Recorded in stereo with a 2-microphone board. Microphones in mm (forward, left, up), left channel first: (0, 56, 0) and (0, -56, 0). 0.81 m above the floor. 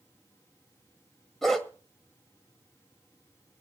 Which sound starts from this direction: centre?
A dog barking, at 1.4 s.